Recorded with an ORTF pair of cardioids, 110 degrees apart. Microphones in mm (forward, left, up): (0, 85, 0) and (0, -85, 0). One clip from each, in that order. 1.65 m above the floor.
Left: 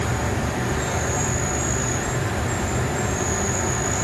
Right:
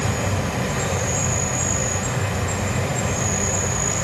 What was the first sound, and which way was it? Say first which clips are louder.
An insect: right 1 dB; 60° right.